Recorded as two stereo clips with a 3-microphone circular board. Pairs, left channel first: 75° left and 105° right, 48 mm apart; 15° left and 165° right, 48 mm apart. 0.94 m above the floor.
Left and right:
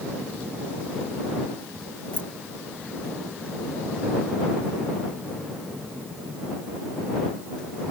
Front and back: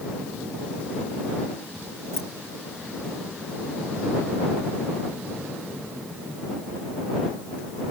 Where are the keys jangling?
10° left.